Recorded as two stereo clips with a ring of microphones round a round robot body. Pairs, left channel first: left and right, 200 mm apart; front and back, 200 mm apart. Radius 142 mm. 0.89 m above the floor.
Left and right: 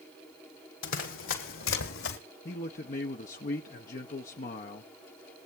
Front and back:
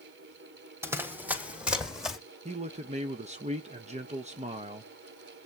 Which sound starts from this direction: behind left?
A man speaking, at 2.5 s.